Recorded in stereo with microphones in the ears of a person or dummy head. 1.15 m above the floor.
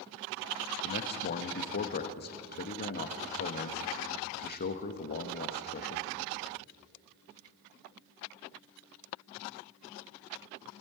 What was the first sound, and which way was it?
A man speaking, 45° left (ahead or behind).